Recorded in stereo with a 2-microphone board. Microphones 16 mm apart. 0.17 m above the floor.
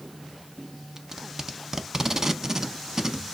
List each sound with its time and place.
1.0 s tape being pulled: 30° right (ahead or behind), 0.7 m